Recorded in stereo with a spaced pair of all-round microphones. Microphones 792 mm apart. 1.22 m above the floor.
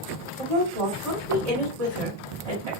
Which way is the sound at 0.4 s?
50° right (ahead or behind).